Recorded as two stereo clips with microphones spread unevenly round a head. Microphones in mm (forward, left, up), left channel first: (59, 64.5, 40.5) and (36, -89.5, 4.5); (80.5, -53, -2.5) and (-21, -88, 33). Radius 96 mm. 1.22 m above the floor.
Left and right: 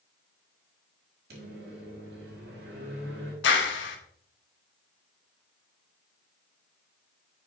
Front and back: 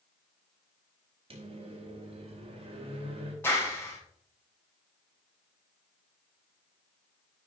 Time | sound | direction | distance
1.3 | a microwave | 130° right | 1.9 m
3.4 | a clap | 100° left | 1.2 m